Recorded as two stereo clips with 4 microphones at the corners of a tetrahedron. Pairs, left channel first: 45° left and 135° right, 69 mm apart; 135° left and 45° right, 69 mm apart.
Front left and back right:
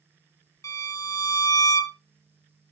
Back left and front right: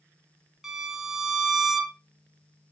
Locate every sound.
0.6 s a violin: 35° left, 0.6 m